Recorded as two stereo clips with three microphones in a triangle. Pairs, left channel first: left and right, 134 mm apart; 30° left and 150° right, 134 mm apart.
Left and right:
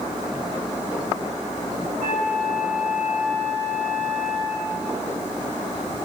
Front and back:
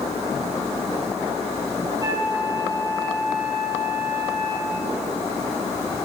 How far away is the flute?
About 3 m.